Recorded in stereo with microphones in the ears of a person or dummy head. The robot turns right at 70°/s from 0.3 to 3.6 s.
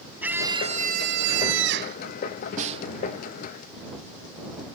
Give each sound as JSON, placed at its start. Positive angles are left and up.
{"t": 0.2, "sound": "a scream", "azimuth_deg": -165}
{"t": 2.6, "sound": "a snare drum", "side_deg": -45}